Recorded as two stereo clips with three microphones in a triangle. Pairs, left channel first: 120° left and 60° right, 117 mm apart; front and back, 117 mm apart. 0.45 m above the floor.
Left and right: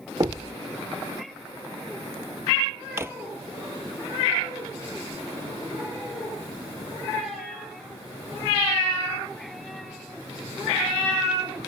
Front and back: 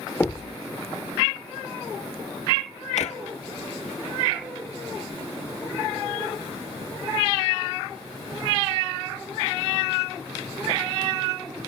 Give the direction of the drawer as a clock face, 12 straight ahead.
12 o'clock.